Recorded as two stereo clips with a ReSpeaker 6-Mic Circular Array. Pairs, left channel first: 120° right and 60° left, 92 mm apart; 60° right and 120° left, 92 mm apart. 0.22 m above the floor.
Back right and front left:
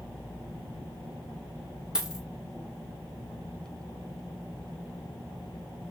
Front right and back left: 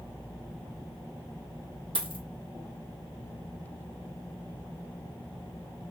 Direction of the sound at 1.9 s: 145° left.